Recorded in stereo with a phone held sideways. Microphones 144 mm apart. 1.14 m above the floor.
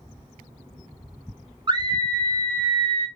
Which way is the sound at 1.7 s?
30° right (ahead or behind).